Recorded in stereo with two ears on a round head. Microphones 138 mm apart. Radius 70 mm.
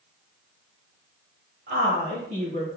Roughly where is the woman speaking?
Right.